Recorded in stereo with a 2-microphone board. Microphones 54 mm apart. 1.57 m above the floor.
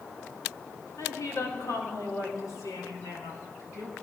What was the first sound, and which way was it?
A woman speaking, 80° left.